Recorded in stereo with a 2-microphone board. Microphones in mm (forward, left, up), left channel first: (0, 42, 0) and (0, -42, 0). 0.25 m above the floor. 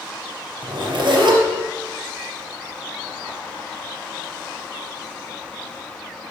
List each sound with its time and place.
0.6 s a zipper: 60° right (ahead or behind), 4 m